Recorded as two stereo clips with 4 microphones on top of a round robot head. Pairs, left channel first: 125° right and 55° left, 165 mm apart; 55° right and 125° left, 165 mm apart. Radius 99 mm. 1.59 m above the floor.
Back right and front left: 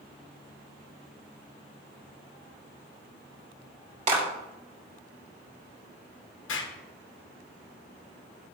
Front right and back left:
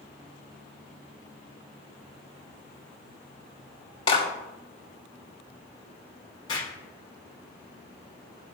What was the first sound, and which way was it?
A clap, 5° left.